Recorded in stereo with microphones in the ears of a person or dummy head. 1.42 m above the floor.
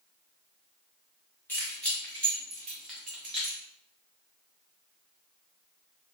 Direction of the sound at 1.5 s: 10° left (ahead or behind).